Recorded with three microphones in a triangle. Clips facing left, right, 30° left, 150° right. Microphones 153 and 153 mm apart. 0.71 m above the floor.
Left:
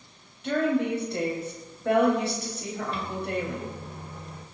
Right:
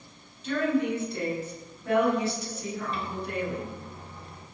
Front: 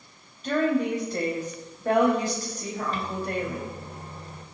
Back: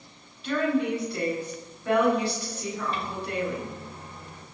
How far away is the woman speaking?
About 4.5 m.